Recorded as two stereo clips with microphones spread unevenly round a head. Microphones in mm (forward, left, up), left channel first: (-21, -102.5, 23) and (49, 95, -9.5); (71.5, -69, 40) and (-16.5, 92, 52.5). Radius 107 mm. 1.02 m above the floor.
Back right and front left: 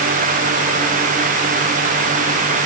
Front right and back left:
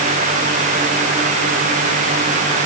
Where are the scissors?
I don't hear scissors.